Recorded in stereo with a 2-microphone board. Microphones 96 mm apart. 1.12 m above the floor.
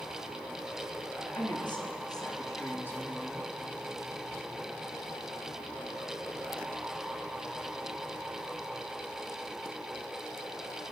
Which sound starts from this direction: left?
A woman speaking, at 1.4 s.